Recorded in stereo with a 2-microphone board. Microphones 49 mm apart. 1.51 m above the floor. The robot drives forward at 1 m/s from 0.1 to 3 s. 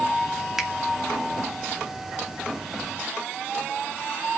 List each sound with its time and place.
0.6 s a finger snap: 10° right (ahead or behind), 2.5 m